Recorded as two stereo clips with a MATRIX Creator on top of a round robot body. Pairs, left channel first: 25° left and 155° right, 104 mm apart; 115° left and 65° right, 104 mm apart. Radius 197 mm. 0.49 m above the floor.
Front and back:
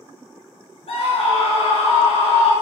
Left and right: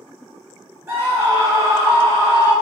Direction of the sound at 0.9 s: 5° left.